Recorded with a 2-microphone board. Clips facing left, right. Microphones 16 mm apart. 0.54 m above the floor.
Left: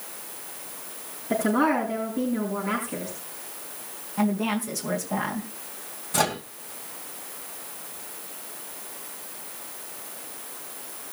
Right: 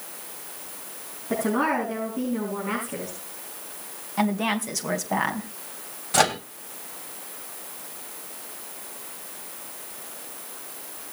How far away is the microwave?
About 2 m.